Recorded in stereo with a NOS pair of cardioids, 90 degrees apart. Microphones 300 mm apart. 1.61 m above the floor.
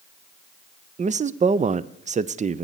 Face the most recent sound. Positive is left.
turn(degrees=-25)